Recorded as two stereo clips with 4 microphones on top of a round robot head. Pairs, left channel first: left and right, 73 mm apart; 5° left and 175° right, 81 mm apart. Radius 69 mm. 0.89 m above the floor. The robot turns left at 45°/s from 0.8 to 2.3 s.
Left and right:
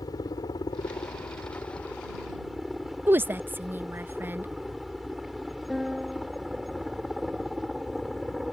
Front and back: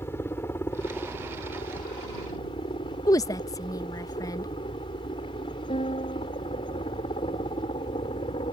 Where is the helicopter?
65° left; by 8.5 s 5° right.